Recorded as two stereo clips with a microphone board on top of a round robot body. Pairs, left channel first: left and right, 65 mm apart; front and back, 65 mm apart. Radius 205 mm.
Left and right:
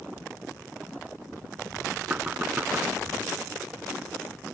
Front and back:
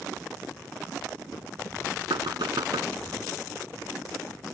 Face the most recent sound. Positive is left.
turn(degrees=-160)